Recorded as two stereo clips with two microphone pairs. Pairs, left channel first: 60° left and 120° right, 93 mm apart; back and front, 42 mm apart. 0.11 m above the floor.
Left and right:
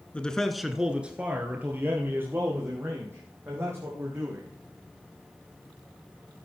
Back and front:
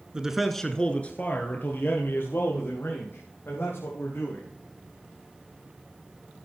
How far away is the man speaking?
About 1.1 m.